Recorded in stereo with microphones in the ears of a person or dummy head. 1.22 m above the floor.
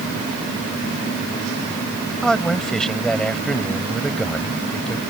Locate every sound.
2.2 s a man speaking: centre (ahead or behind)